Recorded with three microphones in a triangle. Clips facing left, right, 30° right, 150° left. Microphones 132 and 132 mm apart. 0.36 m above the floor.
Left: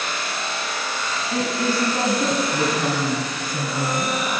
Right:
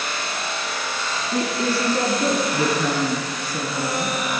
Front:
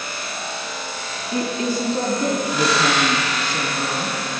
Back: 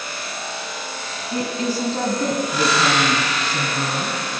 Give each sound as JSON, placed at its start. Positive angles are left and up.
{"t": 1.3, "sound": "a woman speaking", "azimuth_deg": 100, "distance_m": 3.0}